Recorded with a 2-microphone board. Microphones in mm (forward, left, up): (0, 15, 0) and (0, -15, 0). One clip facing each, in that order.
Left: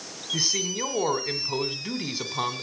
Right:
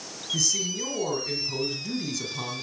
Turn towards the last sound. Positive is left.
turn(degrees=35)  # may be behind; listen again after turning